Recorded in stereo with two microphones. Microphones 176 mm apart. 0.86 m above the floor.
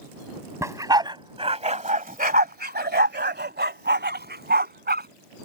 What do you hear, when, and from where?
0.6 s a dog barking: 15° right (ahead or behind); by 5.1 s 65° right (ahead or behind)